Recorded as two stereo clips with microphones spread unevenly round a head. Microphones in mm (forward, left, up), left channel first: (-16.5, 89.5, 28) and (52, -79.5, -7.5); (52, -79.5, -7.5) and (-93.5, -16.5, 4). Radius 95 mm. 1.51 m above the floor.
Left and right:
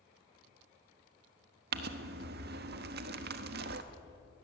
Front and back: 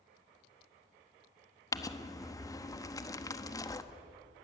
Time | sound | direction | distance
1.7 | crumpling | 85° right | 1.0 m